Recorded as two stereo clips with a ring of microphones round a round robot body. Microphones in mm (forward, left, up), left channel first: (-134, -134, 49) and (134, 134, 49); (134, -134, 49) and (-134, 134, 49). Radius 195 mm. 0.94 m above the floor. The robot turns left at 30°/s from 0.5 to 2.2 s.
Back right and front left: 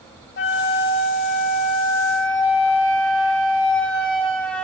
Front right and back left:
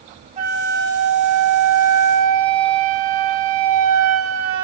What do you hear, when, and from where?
0.4 s a flute: 170° right, 0.8 m; by 4.6 s 140° left, 0.8 m